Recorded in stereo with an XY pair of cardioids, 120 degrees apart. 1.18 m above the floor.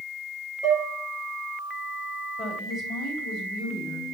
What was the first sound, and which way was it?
Dishes clattering, 50° left.